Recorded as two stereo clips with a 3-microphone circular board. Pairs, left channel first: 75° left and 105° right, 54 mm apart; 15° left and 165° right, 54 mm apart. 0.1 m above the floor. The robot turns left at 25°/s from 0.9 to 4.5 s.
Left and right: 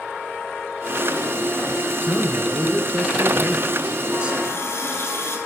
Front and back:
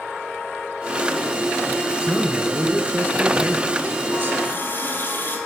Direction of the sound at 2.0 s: 105° right.